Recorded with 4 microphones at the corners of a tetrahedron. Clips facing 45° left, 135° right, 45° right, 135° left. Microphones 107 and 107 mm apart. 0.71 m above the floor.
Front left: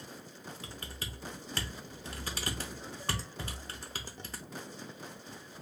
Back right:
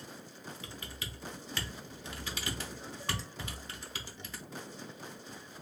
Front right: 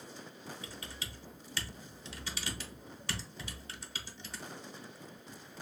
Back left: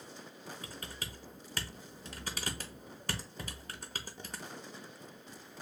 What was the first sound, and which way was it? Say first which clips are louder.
Typing on a keyboard: front left 1 dB, back left 1 dB; 90° left.